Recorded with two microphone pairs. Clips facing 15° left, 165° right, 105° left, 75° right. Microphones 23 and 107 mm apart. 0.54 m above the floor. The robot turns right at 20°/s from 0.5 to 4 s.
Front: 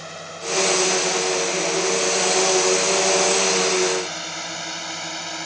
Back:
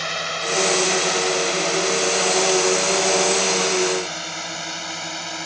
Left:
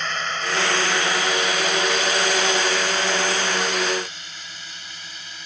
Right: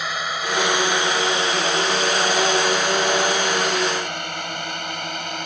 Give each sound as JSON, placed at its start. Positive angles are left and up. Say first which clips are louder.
{"t": 0.0, "sound": "a drone", "louder": "back 8 dB, right 1 dB", "azimuth_deg": -155}